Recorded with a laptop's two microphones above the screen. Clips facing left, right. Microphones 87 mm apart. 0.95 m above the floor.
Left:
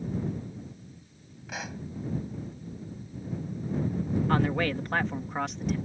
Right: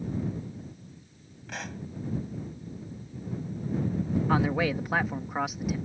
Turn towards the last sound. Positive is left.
turn(degrees=-5)  # may be behind; listen again after turning